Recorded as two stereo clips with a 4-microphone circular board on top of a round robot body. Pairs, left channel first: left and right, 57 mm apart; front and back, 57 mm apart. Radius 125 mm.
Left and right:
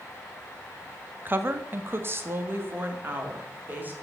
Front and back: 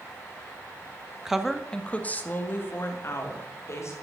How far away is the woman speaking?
About 1.3 m.